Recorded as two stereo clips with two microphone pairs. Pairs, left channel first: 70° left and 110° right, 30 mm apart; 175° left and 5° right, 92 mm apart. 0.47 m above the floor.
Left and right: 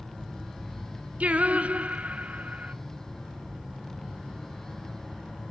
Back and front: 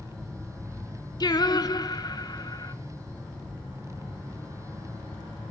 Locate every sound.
1.2 s singing: 145° right, 0.7 m